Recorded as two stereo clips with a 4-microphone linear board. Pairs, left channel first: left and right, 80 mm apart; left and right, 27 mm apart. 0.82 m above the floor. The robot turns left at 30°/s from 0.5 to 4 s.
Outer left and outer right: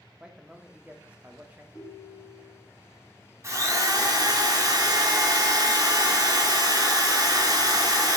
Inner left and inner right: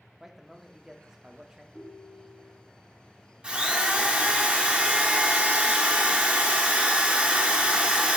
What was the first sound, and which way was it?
A man speaking, 10° right (ahead or behind).